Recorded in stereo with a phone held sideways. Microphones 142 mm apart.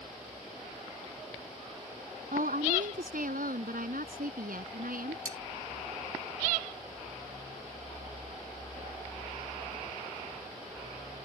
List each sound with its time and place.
2.3 s a woman speaking: 75° right (ahead or behind); by 5.2 s 85° right
5.2 s cutlery clinking: 65° right (ahead or behind)